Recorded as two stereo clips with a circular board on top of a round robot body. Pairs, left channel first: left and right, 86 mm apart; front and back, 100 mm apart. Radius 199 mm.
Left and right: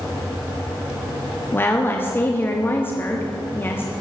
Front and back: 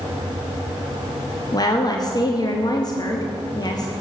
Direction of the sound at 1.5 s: 30° left.